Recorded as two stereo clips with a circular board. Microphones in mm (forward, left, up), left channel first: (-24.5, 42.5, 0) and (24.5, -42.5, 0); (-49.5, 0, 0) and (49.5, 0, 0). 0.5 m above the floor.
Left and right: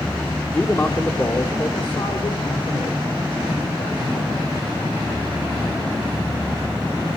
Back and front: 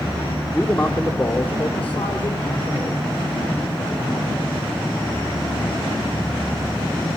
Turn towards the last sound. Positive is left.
turn(degrees=120)